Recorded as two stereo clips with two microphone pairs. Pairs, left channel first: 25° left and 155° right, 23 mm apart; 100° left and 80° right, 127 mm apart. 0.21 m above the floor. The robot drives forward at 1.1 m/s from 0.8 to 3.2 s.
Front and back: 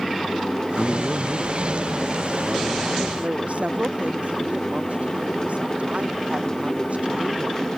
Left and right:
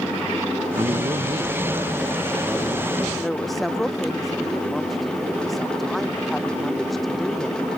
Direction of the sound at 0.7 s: 90° right.